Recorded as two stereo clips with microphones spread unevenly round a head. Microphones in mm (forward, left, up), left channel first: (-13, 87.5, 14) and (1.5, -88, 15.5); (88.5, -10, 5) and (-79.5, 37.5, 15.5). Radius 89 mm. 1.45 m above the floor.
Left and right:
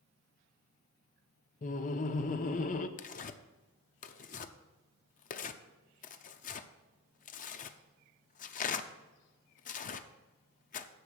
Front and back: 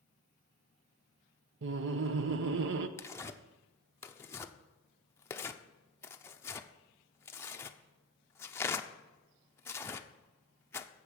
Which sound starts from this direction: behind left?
Laughter, at 1.6 s.